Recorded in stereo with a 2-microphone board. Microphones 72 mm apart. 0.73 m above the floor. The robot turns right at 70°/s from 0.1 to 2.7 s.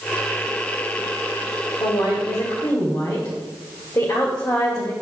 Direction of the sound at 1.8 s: 70° left.